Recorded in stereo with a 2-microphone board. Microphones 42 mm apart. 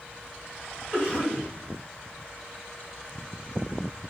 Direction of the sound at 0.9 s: 15° left (ahead or behind).